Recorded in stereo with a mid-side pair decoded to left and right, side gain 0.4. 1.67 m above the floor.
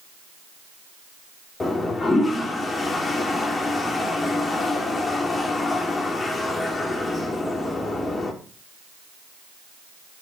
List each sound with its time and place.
1.6 s a toilet flushing: 40° left, 3.5 m